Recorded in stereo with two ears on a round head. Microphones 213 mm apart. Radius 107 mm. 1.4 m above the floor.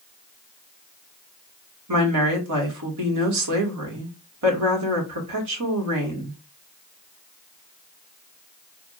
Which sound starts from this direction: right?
A woman speaking, at 1.9 s.